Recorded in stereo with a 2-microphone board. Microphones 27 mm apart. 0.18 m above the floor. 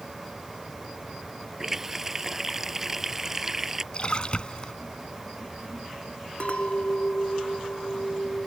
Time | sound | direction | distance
1.6 | a running tap | 10° right (ahead or behind) | ?
3.9 | a splash | 35° left (ahead or behind) | ?
6.4 | a clink | 50° left (ahead or behind) | ?